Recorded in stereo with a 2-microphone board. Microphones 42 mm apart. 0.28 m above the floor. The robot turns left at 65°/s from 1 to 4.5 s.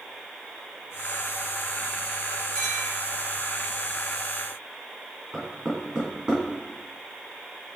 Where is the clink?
20° left (ahead or behind), 3 m; by 2.9 s 5° right (ahead or behind), 3 m.